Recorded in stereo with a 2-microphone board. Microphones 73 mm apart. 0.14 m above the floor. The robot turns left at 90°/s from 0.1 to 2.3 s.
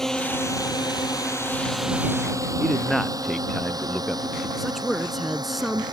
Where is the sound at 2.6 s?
5° left (ahead or behind).